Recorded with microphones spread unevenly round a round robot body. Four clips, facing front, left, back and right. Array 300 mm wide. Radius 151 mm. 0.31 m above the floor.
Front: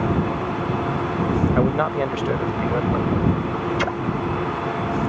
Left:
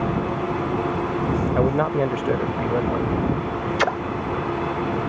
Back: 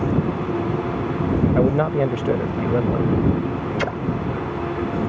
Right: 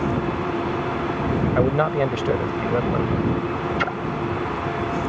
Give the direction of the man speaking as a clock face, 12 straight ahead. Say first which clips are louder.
Right 1 dB, back 2 dB; 5 o'clock.